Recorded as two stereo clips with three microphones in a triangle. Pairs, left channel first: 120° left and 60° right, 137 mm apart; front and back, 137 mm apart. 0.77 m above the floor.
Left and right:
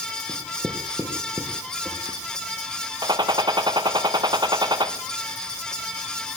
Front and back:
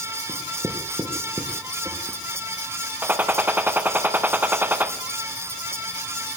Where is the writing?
120° right, 3 m.